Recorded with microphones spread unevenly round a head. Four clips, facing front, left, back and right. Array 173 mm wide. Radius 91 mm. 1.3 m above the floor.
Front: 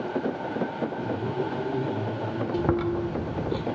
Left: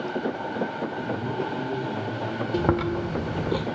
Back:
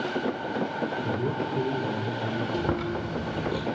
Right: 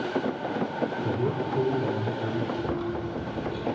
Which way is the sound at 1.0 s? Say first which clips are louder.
Right 1 dB, even; 115° right.